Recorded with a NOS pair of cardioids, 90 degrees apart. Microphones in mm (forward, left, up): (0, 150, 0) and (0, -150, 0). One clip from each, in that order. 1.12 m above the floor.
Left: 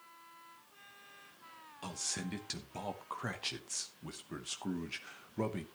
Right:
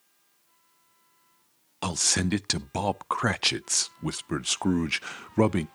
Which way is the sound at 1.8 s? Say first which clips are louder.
Right 14 dB; 65° right.